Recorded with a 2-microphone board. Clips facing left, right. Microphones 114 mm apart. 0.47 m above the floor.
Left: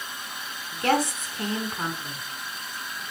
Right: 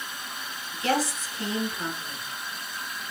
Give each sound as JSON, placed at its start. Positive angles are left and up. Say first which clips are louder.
{"t": 0.7, "sound": "a woman speaking", "louder": "left 3 dB", "side_deg": 55, "distance_m": 4.5}